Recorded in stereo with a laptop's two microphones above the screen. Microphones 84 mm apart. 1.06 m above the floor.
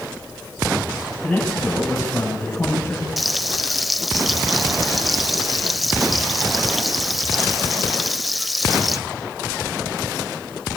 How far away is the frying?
About 1.2 m.